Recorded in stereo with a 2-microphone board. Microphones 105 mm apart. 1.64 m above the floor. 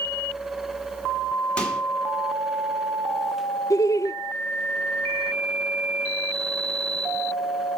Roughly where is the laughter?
Left.